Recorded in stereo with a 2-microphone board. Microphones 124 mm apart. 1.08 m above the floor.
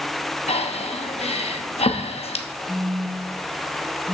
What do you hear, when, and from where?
0.5 s breathing: 60° left (ahead or behind), 0.9 m
2.7 s a phone buzzing: 10° right (ahead or behind), 1.0 m